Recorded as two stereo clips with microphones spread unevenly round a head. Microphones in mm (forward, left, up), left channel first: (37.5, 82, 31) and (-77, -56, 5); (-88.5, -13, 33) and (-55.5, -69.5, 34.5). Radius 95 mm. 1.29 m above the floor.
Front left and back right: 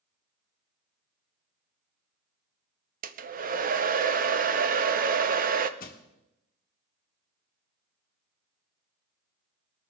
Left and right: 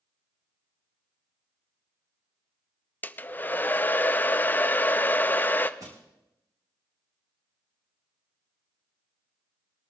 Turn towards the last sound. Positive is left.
turn(degrees=0)